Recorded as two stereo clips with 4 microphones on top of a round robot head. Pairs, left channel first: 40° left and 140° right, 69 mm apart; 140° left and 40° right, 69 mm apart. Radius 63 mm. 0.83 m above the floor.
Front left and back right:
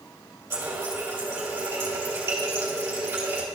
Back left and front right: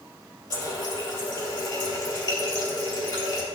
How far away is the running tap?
About 3 m.